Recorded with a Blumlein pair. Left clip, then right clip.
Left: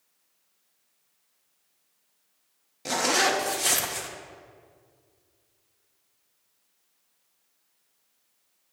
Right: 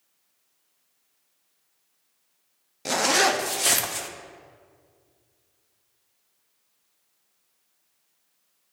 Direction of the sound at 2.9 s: 10° right.